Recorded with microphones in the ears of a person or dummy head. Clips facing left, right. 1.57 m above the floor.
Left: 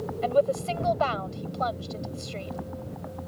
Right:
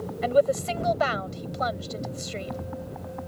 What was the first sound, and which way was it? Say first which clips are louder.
A woman speaking: right 2 dB; 20° right (ahead or behind).